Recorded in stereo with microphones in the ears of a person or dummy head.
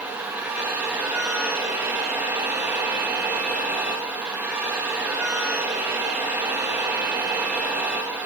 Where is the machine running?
15° right (ahead or behind), 2 m.